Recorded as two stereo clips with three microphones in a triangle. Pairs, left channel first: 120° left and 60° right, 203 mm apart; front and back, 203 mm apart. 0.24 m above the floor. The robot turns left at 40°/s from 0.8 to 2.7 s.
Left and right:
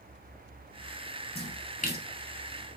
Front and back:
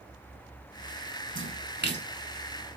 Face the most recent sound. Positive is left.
turn(degrees=125)